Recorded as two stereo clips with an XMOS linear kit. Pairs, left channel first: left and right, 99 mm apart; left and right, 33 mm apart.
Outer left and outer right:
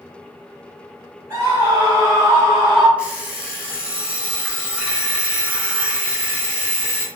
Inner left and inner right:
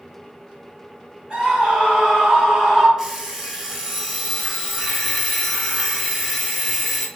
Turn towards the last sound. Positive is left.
turn(degrees=-10)  # may be behind; listen again after turning